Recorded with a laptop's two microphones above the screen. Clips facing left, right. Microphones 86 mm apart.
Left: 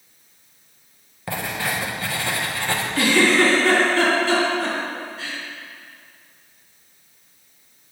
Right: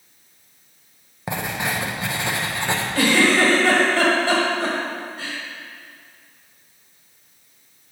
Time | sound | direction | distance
1.3 | writing | 20° right (ahead or behind) | 0.6 m
3.0 | a giggle | 70° right (ahead or behind) | 2.0 m